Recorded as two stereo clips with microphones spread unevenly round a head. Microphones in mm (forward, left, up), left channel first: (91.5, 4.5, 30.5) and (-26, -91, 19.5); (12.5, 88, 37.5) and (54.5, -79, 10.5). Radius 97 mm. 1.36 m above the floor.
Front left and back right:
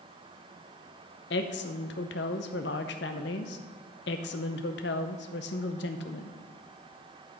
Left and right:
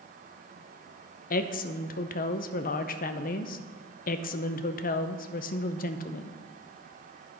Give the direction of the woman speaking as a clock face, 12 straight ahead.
10 o'clock.